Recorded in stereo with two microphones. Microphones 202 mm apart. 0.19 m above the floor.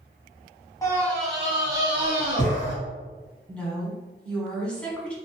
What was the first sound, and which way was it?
A scream, 15° left (ahead or behind).